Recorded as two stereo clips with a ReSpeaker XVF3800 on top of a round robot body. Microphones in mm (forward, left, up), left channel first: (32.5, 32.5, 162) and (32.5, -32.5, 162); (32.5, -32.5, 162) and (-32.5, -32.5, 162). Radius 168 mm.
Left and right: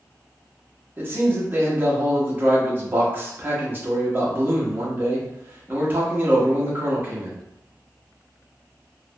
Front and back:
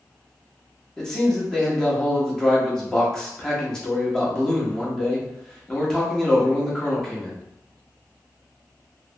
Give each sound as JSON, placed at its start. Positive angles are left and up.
{"t": 1.0, "sound": "a man speaking", "azimuth_deg": -75, "distance_m": 1.4}